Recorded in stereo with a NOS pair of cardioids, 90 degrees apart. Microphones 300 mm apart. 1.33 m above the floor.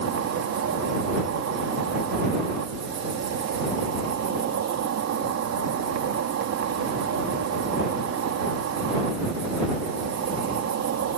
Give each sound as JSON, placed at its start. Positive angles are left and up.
{"t": 0.0, "sound": "an insect", "azimuth_deg": -60}